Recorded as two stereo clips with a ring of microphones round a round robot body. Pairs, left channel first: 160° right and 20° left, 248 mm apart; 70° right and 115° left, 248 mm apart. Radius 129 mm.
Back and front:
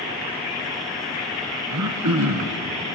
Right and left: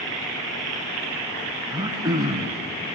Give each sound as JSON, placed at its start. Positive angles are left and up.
{"t": 1.7, "sound": "throat clearing", "azimuth_deg": 40, "distance_m": 0.9}